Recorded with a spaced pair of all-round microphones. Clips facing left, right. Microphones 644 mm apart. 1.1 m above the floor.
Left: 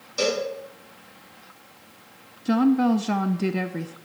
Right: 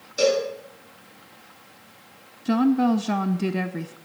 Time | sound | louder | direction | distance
0.2 | a cowbell | right 4 dB | 30° left (ahead or behind) | 5 m
2.5 | a woman speaking | even | centre (ahead or behind) | 0.6 m